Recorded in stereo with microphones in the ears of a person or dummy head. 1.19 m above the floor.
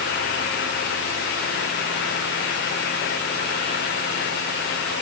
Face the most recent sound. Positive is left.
No sound to turn to.